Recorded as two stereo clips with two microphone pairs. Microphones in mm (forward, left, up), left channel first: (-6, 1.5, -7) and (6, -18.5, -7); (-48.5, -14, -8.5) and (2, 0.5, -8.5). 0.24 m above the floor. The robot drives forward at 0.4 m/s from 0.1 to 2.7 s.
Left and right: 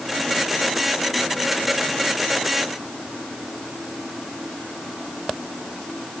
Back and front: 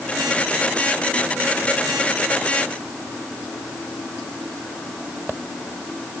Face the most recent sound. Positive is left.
No sound to turn to.